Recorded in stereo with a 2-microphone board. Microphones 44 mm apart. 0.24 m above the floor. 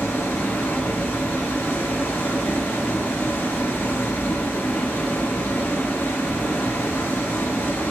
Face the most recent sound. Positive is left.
turn(degrees=75)  # may be behind; listen again after turning